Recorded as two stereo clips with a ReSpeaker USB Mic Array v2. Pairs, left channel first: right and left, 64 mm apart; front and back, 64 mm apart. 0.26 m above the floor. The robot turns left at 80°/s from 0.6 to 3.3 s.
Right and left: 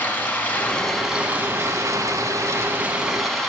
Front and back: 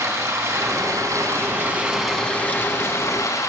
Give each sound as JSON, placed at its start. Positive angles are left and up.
{"t": 0.0, "sound": "running water", "azimuth_deg": -150, "distance_m": 1.6}